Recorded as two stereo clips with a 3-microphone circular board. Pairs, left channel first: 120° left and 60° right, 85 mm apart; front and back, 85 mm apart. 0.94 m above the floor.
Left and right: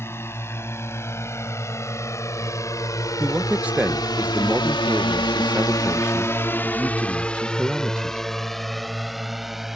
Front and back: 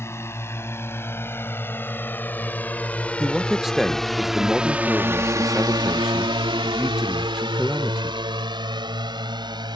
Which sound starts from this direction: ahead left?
A drone, at 0.0 s.